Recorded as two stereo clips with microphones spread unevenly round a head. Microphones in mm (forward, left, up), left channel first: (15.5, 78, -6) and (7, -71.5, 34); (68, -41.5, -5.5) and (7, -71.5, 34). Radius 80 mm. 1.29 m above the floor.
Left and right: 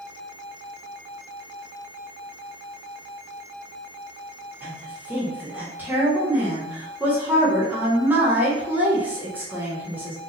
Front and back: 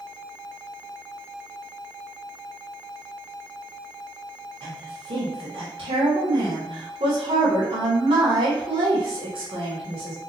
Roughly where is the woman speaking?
Behind.